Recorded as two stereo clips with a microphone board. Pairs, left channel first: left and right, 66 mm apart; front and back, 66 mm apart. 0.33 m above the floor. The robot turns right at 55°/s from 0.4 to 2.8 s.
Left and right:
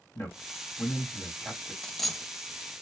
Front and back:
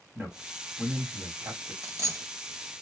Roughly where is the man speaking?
Behind left.